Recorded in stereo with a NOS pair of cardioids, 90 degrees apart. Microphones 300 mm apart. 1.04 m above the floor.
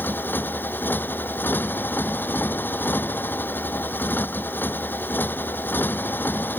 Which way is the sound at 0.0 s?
5° left.